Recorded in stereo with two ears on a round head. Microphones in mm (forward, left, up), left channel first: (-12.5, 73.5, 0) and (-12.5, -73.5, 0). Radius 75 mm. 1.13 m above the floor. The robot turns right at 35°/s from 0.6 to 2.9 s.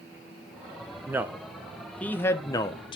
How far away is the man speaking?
About 0.6 m.